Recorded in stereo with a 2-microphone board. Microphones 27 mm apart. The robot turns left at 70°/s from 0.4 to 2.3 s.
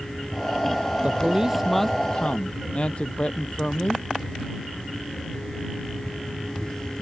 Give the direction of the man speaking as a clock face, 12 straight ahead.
5 o'clock.